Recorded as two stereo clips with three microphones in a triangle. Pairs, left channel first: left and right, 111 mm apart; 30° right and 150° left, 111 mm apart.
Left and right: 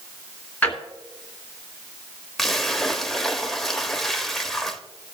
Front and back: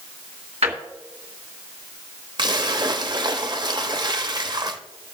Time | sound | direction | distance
0.6 | a drawer | 170° left | 1.9 m
2.4 | a splash | 175° left | 0.7 m